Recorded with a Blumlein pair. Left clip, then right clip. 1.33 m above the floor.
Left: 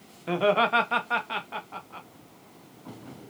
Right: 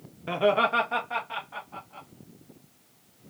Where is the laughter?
5° right, 0.8 m; by 2.1 s 35° left, 1.6 m.